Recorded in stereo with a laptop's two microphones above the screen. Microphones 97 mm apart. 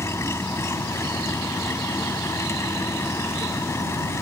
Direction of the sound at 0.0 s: 25° left (ahead or behind).